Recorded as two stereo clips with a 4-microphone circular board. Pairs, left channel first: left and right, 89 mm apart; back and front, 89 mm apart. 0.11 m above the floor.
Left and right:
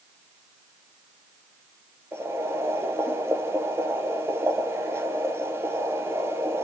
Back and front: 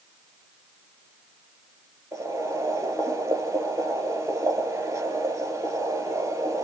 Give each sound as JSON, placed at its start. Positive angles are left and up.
{"t": 2.1, "sound": "boiling", "azimuth_deg": -40, "distance_m": 1.7}